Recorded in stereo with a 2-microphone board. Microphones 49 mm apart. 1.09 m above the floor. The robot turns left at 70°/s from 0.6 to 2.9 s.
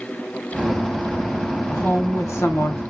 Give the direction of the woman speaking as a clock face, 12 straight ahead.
7 o'clock.